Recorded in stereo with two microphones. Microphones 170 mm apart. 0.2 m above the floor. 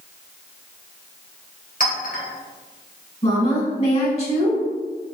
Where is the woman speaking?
40° left (ahead or behind), 1.6 m.